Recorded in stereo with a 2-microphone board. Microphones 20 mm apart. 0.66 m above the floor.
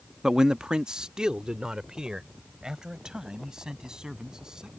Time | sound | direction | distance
0.2 | a man speaking | 25° right (ahead or behind) | ?